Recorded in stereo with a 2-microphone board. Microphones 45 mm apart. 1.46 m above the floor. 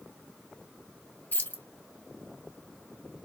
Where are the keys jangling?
45° left (ahead or behind), 0.8 m.